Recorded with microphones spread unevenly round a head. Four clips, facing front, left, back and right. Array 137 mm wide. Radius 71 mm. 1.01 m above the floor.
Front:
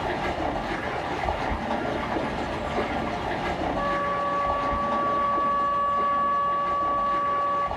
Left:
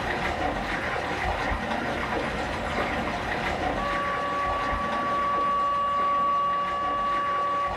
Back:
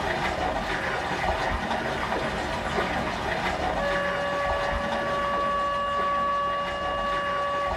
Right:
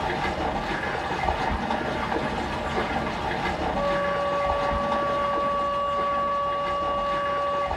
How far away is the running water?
About 2.0 m.